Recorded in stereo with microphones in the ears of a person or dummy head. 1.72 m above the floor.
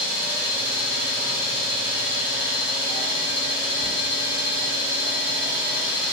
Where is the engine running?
15° right (ahead or behind), 1.9 m.